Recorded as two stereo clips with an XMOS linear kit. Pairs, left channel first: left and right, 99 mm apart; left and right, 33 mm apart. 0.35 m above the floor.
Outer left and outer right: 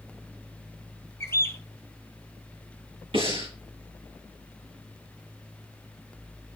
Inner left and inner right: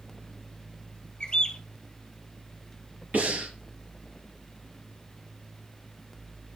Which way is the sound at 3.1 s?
65° right (ahead or behind).